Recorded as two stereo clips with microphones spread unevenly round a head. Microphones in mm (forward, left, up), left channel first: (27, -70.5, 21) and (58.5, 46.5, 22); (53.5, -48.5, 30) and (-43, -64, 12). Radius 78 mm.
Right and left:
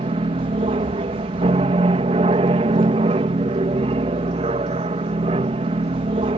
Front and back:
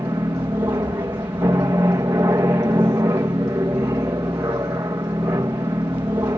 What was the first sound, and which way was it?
An aircraft, 120° left.